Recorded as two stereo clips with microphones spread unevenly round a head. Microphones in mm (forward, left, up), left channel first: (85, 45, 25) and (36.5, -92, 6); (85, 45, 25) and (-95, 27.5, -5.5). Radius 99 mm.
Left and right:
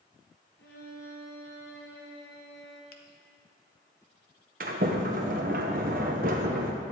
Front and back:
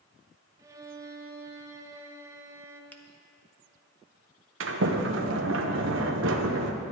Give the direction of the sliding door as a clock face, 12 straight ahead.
5 o'clock.